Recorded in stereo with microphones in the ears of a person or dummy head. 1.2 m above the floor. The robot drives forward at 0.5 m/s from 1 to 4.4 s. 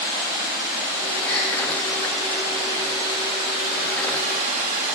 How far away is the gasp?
About 0.8 m.